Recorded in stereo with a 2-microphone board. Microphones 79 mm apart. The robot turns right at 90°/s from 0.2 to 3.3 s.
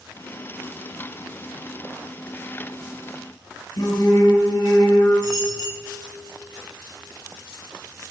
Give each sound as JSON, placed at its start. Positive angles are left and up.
{"t": 3.8, "sound": "singing", "side_deg": 60, "distance_m": 6.5}
{"t": 5.2, "sound": "a dropped coin", "side_deg": 50, "distance_m": 4.5}